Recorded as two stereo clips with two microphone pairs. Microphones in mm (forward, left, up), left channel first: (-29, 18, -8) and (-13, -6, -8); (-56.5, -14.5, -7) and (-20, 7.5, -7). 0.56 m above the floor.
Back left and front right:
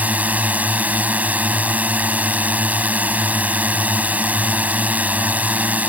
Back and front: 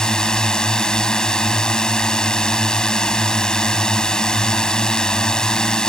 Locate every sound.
0.0 s a drone: 80° right